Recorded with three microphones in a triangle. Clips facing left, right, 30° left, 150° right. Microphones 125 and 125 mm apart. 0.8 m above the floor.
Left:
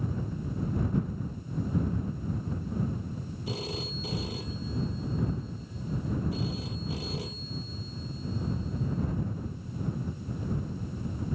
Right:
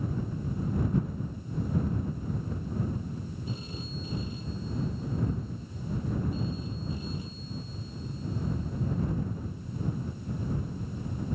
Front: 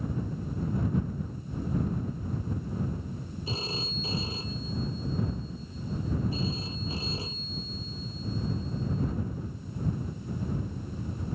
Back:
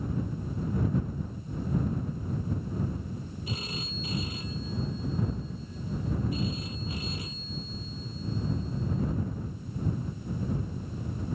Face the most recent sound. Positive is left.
turn(degrees=90)